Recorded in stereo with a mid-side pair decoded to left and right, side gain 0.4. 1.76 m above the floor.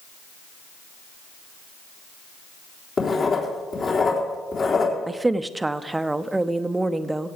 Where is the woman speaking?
20° right, 0.8 m.